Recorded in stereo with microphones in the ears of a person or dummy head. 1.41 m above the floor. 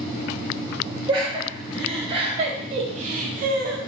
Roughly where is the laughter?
Right.